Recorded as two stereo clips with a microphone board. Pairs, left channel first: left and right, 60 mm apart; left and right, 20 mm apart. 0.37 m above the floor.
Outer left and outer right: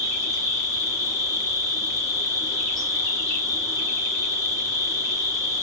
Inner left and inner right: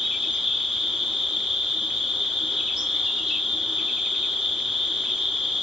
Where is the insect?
80° right, 1.7 m.